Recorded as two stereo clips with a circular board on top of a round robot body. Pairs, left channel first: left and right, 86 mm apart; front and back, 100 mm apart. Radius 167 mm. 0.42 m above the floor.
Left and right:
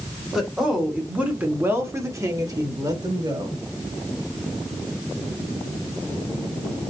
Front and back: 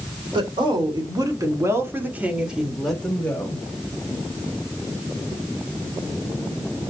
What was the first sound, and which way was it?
A woman speaking, 175° right.